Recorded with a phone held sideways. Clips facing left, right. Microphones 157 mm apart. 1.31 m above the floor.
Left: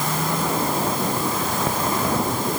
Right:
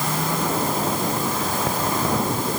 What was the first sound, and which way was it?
Only background noise.